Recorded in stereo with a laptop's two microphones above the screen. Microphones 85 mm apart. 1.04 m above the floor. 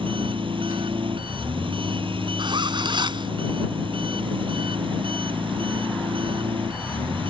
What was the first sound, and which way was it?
An engine running, 80° right.